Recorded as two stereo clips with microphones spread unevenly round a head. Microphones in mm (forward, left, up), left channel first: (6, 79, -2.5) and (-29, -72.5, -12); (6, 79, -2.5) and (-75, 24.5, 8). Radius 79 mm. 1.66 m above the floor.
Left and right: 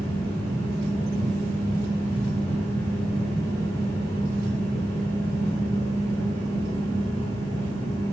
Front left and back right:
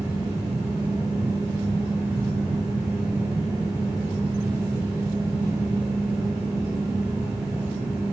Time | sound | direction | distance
0.0 | a fan | 105° right | 1.8 m